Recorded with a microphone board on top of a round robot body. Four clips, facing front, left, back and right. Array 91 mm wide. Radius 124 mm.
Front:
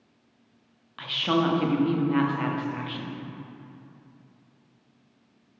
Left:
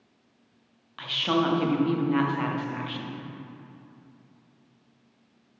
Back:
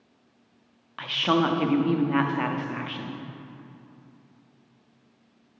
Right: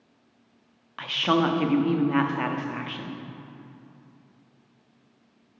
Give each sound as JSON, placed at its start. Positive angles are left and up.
{"t": 1.0, "sound": "a woman speaking", "azimuth_deg": -130, "distance_m": 0.8}